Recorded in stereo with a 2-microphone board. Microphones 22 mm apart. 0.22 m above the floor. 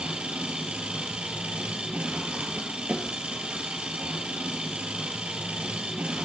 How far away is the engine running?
About 3 m.